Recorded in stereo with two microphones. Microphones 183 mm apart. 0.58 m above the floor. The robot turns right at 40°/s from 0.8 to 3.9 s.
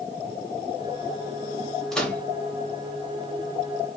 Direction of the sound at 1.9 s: Centre (ahead or behind).